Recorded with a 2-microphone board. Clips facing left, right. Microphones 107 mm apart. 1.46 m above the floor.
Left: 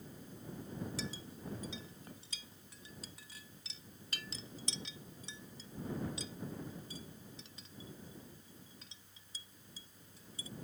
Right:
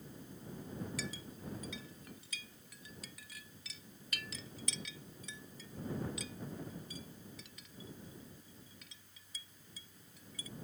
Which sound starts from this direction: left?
A clink, at 1.0 s.